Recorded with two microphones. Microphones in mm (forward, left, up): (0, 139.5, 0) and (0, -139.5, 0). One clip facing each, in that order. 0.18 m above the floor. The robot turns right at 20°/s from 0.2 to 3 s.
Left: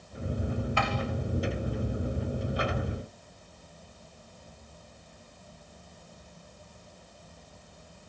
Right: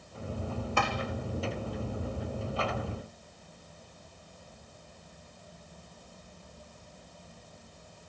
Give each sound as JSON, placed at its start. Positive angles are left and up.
{"t": 0.8, "sound": "tapping", "side_deg": -55, "distance_m": 2.5}